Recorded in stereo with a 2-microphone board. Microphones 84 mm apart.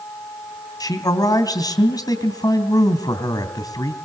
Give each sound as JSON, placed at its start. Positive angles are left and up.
{"t": 0.8, "sound": "a man speaking", "side_deg": 50, "distance_m": 3.0}